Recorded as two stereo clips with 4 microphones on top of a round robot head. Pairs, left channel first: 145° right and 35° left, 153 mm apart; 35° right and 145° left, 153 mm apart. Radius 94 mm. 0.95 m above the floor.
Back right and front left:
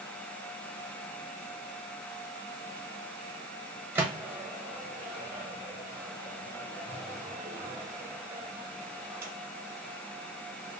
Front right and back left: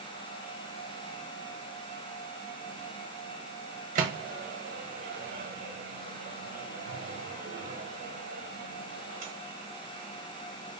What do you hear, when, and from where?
4.0 s a microwave: 110° left, 0.9 m